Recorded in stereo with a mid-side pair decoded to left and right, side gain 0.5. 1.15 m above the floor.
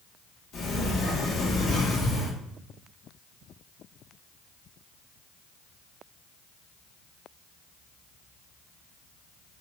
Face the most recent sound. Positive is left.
turn(degrees=60)